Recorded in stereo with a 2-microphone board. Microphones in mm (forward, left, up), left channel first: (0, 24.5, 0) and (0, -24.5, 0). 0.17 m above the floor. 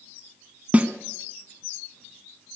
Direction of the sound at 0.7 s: 30° right (ahead or behind).